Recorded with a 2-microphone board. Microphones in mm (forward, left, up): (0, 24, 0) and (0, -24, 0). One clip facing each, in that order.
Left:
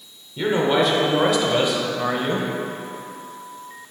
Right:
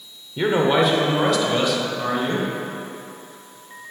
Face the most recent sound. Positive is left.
turn(degrees=25)  # may be behind; listen again after turning